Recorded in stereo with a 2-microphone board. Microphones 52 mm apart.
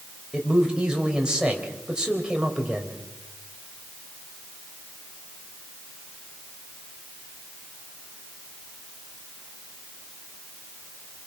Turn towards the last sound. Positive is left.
turn(degrees=-15)  # may be behind; listen again after turning